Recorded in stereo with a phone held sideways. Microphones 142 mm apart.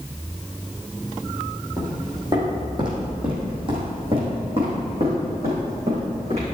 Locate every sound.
1.8 s footsteps: 25° right (ahead or behind), 3.5 m; by 6.5 s 50° right (ahead or behind), 5 m